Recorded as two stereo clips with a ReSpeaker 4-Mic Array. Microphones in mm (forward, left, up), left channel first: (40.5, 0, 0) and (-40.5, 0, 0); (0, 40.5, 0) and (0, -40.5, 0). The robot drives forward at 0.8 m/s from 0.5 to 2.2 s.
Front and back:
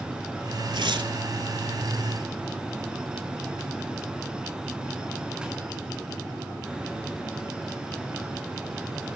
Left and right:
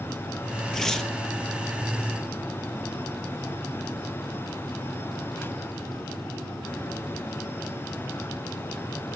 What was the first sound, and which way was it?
Tearing paper, 175° left.